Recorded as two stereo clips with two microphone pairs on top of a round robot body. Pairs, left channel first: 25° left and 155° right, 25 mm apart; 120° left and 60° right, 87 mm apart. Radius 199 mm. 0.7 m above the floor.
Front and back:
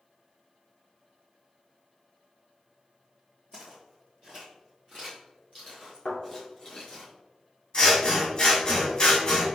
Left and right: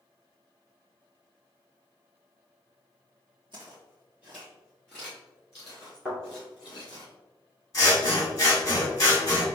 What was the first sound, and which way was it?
Footsteps, 25° right.